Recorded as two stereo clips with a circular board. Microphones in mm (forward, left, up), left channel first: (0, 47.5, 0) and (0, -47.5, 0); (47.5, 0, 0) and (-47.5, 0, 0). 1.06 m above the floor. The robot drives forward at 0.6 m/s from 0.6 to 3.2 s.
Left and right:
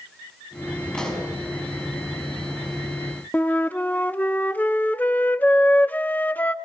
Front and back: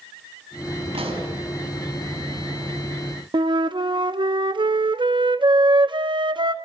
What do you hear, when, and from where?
0.9 s a pop: 175° left, 5.5 m
3.3 s a flute: 160° left, 0.7 m